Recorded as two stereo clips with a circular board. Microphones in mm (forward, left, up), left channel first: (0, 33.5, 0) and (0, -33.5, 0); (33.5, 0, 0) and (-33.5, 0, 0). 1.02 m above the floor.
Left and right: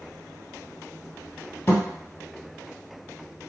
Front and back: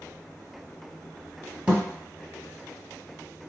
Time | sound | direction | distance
1.7 | a thud | 115° left | 1.1 m